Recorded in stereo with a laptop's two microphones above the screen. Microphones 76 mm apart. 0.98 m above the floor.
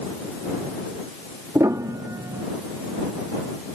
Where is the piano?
45° right (ahead or behind).